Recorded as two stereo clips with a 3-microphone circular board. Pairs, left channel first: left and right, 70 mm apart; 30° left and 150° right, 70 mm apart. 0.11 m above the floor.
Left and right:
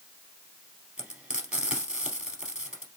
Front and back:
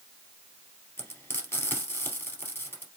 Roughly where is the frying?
Ahead.